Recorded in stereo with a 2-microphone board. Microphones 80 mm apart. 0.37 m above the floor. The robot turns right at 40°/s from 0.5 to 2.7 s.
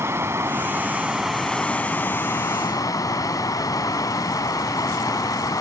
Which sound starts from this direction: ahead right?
Running water, at 0.0 s.